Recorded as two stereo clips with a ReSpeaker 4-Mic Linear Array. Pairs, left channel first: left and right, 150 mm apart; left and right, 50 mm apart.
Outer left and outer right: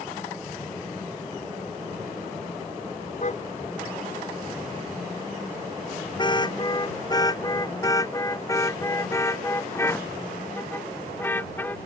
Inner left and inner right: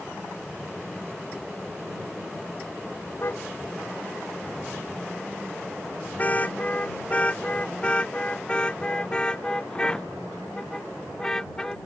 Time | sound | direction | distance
3.2 | a car horn | 50° left (ahead or behind) | ?